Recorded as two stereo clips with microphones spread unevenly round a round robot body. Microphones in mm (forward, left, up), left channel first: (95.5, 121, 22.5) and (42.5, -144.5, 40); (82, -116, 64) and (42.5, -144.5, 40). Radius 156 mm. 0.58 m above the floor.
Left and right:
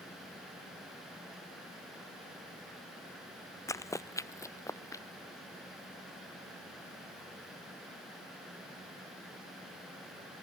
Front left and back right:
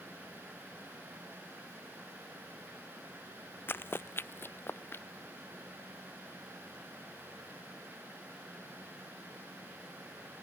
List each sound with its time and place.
3.7 s running footsteps: straight ahead